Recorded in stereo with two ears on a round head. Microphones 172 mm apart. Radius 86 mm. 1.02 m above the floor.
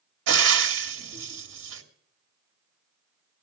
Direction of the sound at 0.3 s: 80° right.